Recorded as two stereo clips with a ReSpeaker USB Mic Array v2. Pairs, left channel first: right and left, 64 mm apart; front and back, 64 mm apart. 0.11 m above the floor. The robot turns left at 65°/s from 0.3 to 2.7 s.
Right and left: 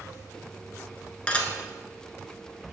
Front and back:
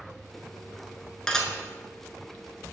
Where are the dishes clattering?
55° right, 0.9 m; by 1.5 s 70° right, 0.9 m.